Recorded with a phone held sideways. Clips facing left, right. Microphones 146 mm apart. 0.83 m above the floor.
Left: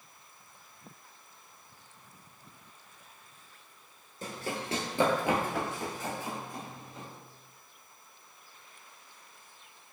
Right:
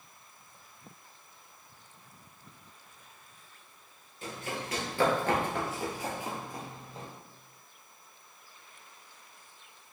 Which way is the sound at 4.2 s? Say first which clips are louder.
Left 1 dB; 40° left (ahead or behind).